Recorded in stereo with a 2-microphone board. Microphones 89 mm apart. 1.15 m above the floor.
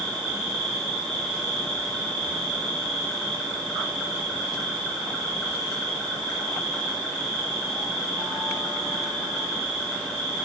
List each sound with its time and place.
0.0 s an insect: 10° left (ahead or behind), 1.3 m